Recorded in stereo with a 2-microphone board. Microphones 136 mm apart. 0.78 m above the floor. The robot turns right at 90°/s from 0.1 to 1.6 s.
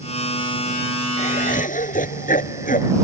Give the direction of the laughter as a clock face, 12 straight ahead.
10 o'clock.